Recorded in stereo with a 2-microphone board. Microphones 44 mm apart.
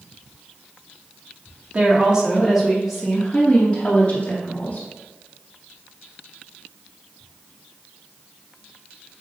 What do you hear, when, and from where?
1.7 s a woman speaking: 30° right (ahead or behind), 2 m; by 4.9 s 35° left (ahead or behind), 3 m